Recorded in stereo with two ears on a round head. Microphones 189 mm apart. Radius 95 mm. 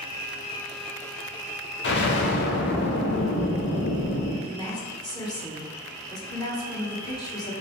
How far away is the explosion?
About 0.8 m.